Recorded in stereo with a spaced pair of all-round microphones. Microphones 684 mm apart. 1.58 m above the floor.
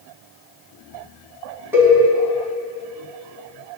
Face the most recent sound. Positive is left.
turn(degrees=-5)  # may be behind; listen again after turning